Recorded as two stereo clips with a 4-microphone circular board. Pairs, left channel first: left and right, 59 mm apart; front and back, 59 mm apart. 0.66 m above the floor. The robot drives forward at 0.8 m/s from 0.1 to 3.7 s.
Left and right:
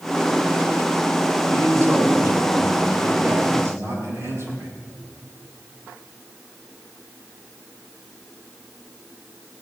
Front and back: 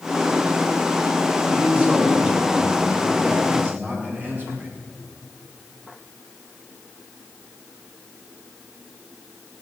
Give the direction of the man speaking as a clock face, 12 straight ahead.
4 o'clock.